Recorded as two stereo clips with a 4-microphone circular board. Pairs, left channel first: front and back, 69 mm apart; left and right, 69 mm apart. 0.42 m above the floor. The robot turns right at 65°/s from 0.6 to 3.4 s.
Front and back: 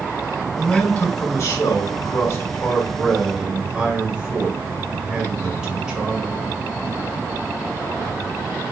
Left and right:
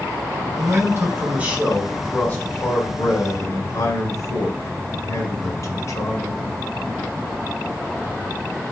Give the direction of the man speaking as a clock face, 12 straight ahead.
3 o'clock.